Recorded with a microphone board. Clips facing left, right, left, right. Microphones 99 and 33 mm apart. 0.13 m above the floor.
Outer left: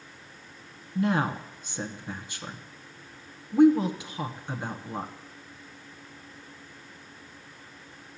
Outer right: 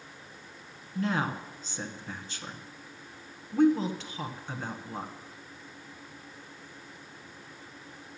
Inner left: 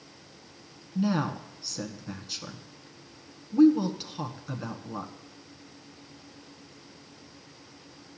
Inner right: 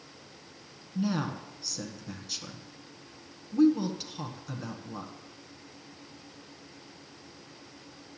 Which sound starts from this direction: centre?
A woman speaking, at 0.9 s.